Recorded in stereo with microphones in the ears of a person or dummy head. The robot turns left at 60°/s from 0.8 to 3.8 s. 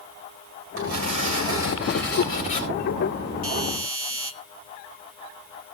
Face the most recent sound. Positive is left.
turn(degrees=65)  # may be behind; listen again after turning